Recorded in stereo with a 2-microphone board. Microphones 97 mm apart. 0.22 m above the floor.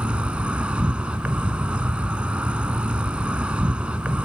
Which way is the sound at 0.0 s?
10° right (ahead or behind).